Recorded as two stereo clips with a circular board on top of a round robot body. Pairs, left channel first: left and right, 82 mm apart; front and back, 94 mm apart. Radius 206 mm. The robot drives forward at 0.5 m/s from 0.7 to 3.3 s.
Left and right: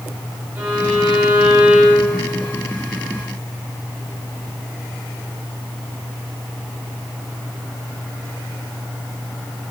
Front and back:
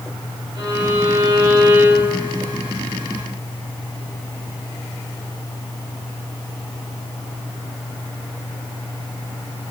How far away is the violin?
About 3.5 m.